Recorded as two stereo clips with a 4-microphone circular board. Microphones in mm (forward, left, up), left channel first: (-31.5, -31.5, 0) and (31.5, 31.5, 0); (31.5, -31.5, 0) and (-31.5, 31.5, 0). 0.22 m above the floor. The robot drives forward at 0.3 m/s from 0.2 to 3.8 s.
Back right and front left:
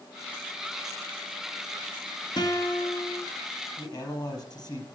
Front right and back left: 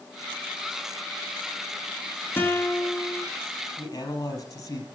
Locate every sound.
2.4 s a guitar: 105° right, 2.5 m; by 3.2 s 115° right, 2.5 m
3.8 s a man speaking: 95° right, 5 m